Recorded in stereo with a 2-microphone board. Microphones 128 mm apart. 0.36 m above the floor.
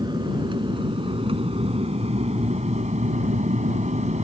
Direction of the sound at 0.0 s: 35° right (ahead or behind).